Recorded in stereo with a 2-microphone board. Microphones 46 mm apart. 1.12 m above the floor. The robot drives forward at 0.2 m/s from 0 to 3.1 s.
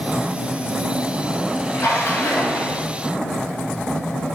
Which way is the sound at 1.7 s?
75° left (ahead or behind).